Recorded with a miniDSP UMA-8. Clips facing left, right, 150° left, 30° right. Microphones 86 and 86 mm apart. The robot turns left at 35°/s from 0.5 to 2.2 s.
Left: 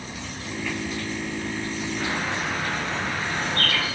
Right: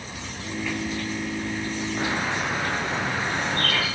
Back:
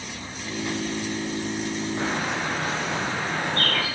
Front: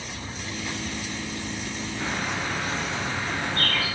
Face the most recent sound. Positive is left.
turn(degrees=-165)